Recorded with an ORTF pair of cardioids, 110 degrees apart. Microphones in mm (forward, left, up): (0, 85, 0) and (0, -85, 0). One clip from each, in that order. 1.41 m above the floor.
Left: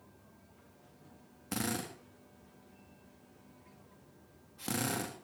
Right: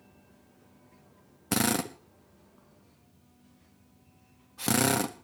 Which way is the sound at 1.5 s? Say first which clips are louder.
Right 9 dB; 55° right.